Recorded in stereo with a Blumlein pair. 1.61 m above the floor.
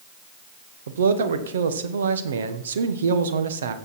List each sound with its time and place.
0.9 s a man speaking: 65° right, 1.3 m